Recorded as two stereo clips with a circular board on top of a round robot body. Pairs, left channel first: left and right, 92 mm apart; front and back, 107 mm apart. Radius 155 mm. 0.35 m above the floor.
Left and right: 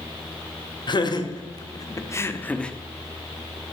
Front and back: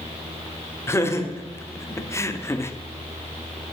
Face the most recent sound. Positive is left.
turn(degrees=20)